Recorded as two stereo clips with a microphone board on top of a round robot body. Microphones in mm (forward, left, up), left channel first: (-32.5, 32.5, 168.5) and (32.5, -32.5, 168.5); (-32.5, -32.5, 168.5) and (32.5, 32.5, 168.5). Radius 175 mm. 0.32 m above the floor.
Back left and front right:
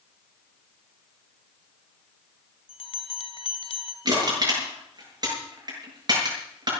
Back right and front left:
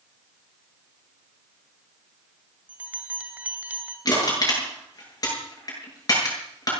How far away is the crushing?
About 8.5 m.